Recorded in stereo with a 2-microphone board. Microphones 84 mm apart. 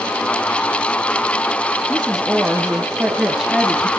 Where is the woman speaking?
5° right (ahead or behind), 1.5 m.